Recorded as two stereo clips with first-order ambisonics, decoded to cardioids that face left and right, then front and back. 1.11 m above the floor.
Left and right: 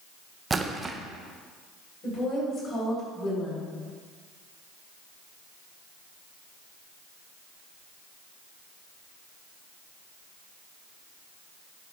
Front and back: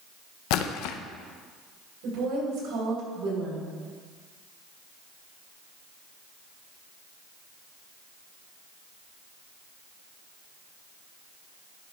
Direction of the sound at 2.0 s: 155° left.